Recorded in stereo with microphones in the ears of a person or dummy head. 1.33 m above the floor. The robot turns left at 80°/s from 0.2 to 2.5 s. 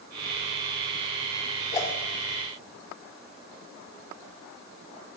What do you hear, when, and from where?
1.7 s a whoosh: 30° left (ahead or behind), 5.5 m; by 1.9 s 15° left (ahead or behind), 5.5 m